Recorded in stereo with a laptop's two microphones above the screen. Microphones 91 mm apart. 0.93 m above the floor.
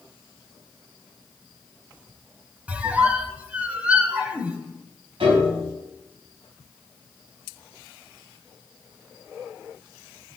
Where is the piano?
85° right, 3 m.